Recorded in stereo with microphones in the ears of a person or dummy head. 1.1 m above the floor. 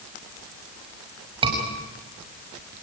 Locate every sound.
1.4 s a scream: 25° right (ahead or behind), 6 m